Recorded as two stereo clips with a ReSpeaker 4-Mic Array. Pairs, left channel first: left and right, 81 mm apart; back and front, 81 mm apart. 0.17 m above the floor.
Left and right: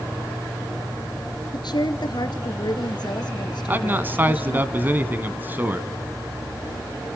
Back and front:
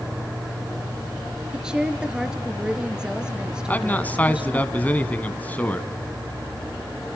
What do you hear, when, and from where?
1.5 s a woman speaking: 80° left, 2.5 m
3.7 s a man speaking: 130° right, 1.5 m